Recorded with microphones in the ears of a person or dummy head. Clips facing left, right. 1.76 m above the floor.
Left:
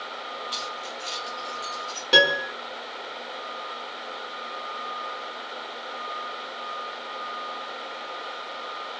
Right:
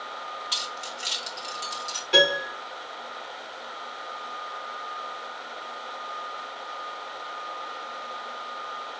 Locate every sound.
0.5 s keys jangling: 35° right (ahead or behind), 0.8 m
2.1 s a piano: 60° left (ahead or behind), 1.5 m